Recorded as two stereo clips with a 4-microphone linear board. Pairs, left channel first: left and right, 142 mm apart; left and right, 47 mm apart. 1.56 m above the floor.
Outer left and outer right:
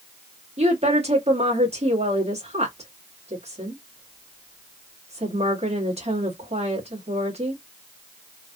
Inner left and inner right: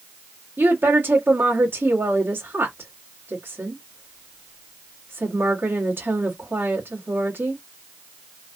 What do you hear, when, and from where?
0.6 s a woman speaking: 45° right (ahead or behind), 1.4 m